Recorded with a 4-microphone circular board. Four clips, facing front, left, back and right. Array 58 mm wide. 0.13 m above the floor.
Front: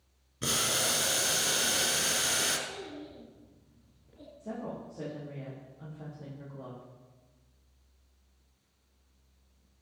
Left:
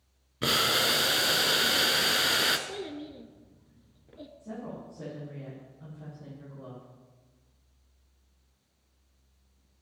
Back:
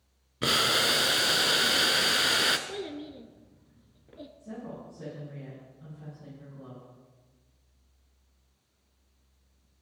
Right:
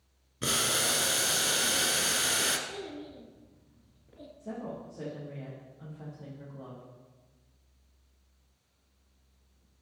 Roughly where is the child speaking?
Behind left.